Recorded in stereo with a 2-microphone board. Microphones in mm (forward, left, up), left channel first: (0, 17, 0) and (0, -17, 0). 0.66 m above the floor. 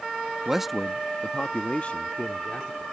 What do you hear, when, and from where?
0.5 s a man speaking: 20° right (ahead or behind); by 2.8 s 55° left (ahead or behind)